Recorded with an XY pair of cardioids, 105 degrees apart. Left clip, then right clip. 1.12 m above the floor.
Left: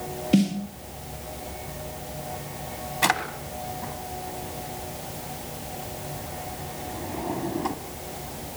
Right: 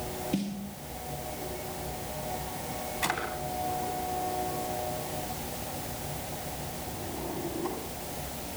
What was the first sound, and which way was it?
A snare drum, 65° left.